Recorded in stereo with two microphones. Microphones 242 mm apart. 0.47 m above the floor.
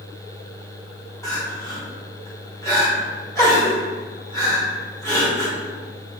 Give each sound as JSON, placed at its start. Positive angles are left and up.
{"t": 1.2, "sound": "crying", "side_deg": 15, "distance_m": 1.2}